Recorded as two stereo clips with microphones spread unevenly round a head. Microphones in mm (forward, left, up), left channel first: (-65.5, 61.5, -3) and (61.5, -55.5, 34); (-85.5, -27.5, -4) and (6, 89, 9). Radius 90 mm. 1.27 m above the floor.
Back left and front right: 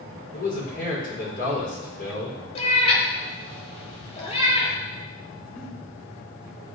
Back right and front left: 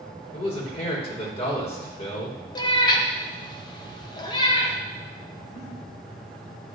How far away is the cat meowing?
About 1.1 m.